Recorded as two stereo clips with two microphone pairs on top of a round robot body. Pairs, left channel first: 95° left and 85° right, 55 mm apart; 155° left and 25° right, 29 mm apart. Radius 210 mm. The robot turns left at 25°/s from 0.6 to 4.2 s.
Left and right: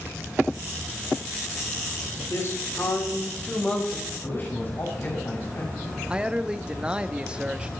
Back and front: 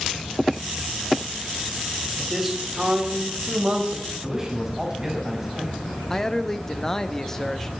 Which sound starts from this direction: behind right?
A man speaking, at 6.1 s.